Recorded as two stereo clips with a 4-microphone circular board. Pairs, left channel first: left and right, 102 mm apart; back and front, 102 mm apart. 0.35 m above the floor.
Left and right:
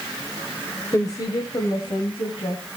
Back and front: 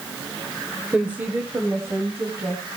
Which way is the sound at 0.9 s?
70° left.